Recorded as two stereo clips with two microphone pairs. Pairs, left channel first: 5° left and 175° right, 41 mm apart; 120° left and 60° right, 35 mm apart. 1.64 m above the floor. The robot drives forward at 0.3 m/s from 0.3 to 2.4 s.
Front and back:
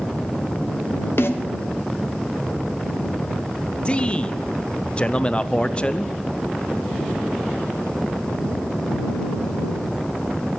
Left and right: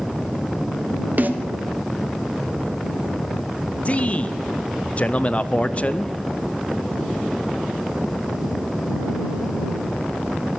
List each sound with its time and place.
1.2 s a snare drum: 20° right, 1.1 m
3.9 s a man speaking: 70° left, 0.5 m